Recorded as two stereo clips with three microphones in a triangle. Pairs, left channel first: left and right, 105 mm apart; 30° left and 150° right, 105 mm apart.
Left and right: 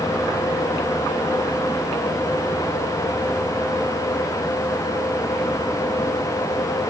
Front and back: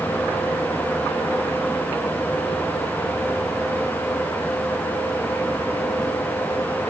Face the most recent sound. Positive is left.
No sound to turn to.